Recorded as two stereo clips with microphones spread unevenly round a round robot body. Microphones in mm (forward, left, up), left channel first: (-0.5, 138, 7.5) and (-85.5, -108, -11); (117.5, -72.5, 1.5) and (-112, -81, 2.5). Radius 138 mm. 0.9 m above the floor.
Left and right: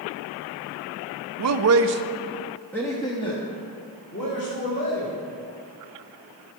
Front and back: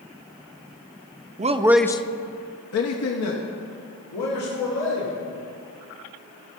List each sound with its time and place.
1.4 s a man speaking: 120° right, 0.7 m; by 5.1 s 5° left, 2.5 m